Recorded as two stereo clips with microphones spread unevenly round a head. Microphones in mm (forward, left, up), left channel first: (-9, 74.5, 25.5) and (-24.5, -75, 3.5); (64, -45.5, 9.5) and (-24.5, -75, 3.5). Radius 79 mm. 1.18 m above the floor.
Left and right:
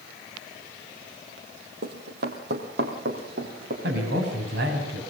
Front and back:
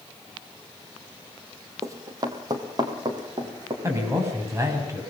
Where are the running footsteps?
110° right, 2.5 m; by 3.7 s 120° right, 5 m.